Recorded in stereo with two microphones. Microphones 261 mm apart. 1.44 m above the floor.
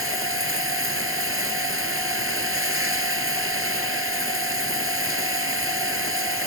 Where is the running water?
55° right (ahead or behind).